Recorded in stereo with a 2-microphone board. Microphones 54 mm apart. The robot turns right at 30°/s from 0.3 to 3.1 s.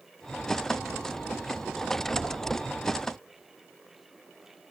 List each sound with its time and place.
2.2 s knocking: 65° right (ahead or behind), 3.5 m; by 2.4 s 75° right (ahead or behind), 3.5 m